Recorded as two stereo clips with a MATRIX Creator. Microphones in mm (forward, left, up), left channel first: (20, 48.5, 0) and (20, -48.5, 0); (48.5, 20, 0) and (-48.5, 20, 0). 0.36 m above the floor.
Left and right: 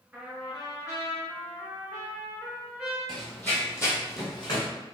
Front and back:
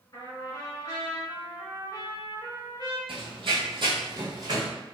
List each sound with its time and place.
0.1 s a trumpet: 15° right, 1.4 m
3.1 s running footsteps: 175° left, 0.8 m; by 4.7 s 130° left, 1.3 m